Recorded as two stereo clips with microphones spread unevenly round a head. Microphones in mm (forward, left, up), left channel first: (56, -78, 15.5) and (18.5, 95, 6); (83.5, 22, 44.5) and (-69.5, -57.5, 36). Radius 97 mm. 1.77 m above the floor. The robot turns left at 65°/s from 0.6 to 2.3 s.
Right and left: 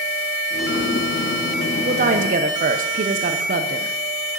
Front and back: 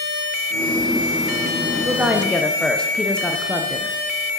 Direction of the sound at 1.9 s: 135° left.